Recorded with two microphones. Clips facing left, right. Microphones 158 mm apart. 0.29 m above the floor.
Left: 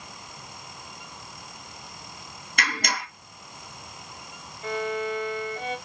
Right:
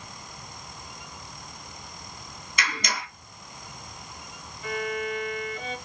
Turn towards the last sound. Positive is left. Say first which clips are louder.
# left 2 dB
turn(degrees=40)  # may be behind; listen again after turning